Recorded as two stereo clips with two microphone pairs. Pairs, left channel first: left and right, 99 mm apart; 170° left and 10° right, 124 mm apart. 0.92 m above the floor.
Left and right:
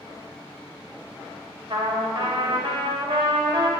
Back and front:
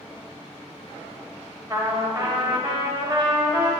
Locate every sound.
1.7 s a trumpet: 65° right, 1.0 m